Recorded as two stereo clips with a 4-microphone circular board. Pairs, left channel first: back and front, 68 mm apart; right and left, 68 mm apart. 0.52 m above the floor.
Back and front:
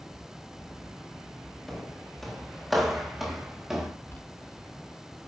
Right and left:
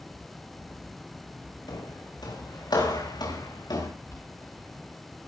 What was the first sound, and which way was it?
Footsteps, 95° right.